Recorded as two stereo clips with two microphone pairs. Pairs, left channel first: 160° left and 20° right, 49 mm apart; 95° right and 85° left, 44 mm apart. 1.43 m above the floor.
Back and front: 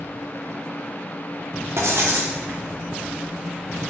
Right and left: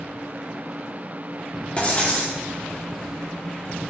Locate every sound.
1.8 s writing: 35° right, 0.7 m